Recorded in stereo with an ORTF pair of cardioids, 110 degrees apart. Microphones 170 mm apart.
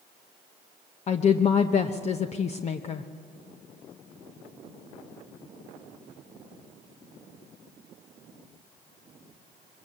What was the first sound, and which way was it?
A woman speaking, 40° left.